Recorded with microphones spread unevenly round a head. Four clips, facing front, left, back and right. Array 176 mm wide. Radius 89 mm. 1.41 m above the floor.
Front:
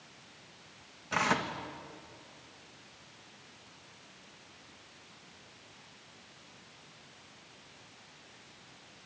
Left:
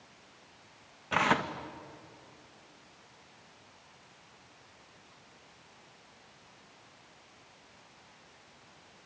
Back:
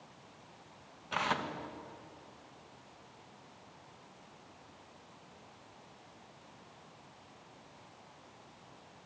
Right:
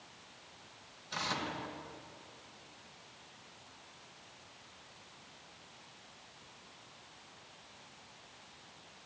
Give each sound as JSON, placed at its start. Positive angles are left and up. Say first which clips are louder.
{"t": 1.1, "sound": "tearing paper", "louder": "left 10 dB, front 4 dB", "azimuth_deg": 60, "distance_m": 1.6}